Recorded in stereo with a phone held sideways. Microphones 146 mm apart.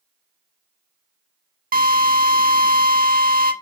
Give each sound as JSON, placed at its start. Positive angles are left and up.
{"t": 1.7, "sound": "a drill", "side_deg": -75, "distance_m": 1.3}